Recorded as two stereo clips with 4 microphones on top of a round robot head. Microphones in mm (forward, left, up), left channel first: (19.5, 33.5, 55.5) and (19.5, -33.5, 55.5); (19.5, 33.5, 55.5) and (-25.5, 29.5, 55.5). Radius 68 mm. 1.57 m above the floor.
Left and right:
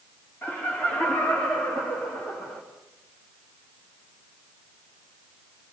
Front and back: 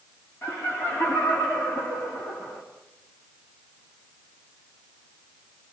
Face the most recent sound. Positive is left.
turn(degrees=30)